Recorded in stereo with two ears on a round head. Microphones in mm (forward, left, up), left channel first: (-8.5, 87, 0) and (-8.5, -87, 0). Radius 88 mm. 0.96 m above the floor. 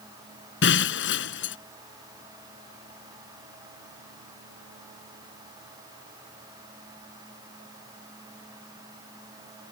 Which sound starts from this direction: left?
Breaking glass, at 0.6 s.